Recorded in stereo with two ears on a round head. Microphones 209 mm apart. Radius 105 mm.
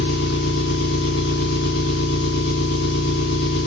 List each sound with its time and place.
0.0 s an engine running: 70° left (ahead or behind), 1.7 m